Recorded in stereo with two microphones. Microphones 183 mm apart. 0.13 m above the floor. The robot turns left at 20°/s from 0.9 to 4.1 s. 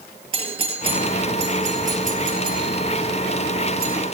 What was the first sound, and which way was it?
A doorbell, 30° right (ahead or behind).